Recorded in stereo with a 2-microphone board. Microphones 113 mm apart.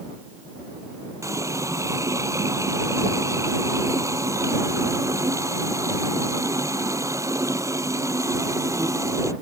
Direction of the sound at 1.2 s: 30° right (ahead or behind).